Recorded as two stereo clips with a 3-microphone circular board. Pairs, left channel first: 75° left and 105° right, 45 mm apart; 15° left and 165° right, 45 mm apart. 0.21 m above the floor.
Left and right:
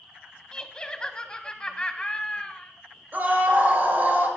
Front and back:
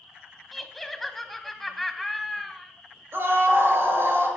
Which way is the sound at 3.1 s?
145° right.